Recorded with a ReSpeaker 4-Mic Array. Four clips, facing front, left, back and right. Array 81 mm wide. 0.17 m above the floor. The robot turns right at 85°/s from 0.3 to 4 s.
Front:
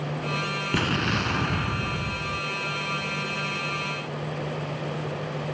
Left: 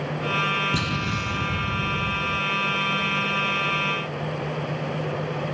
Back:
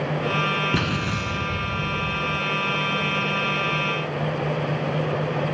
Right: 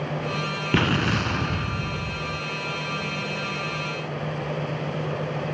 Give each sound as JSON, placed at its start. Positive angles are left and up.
{"t": 0.7, "sound": "an explosion", "azimuth_deg": -90, "distance_m": 0.5}